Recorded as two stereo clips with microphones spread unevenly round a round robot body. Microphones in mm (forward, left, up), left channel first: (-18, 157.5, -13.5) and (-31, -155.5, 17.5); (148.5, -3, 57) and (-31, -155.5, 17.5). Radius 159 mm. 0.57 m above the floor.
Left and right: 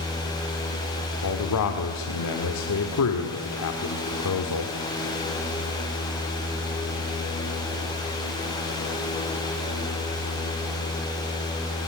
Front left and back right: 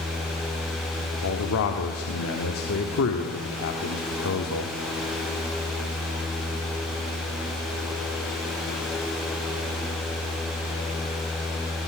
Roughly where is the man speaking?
Left.